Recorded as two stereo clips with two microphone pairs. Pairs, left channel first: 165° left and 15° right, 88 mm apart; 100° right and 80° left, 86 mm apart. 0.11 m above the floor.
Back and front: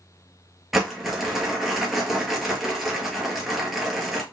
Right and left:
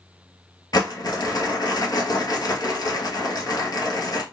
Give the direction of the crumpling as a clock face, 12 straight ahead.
3 o'clock.